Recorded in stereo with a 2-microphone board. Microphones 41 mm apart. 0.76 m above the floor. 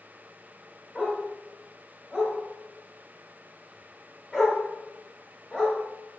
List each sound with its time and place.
0.9 s a dog barking: centre (ahead or behind), 0.7 m